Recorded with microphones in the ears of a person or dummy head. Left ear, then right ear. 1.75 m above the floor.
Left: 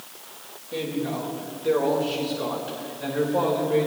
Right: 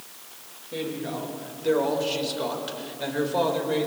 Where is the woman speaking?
Centre (ahead or behind), 3 m; by 3.9 s 60° right (ahead or behind), 3 m.